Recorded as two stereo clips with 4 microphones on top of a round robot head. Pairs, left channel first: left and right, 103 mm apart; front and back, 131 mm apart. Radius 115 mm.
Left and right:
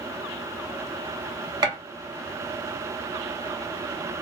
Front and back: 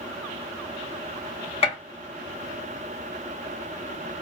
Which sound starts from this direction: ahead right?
A gunshot, at 1.6 s.